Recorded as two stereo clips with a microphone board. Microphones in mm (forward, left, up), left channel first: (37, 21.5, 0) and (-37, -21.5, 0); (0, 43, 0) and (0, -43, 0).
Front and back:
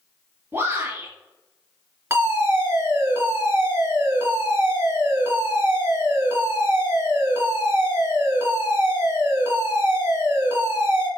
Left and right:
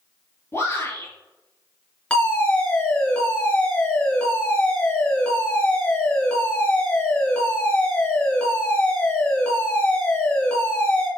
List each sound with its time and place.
0.5 s a shout: 150° left, 3 m
2.1 s a fire alarm: 165° left, 3.5 m